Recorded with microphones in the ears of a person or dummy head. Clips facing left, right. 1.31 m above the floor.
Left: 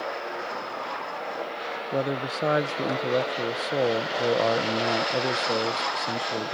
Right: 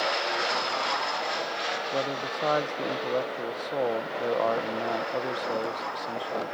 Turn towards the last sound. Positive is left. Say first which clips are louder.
# left 5 dB
turn(degrees=25)  # may be behind; listen again after turning